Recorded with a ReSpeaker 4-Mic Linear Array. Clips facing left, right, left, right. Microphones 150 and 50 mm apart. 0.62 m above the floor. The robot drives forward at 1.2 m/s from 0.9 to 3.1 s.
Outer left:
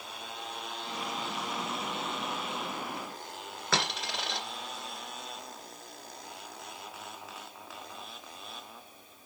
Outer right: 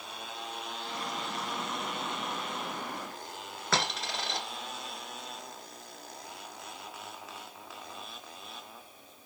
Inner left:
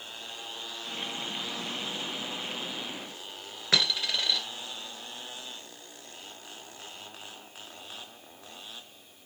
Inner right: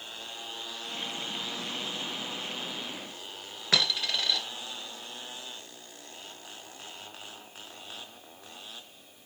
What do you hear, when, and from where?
3.7 s a dropped coin: centre (ahead or behind), 1.9 m